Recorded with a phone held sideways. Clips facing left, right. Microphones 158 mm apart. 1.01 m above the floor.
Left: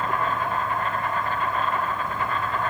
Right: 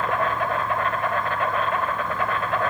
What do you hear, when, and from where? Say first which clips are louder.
0.0 s an insect: right 2 dB; 80° right, 2.5 m